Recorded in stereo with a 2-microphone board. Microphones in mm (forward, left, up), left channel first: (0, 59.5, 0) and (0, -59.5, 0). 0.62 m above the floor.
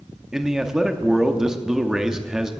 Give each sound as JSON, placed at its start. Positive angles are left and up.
{"t": 0.3, "sound": "a man speaking", "side_deg": -5, "distance_m": 0.9}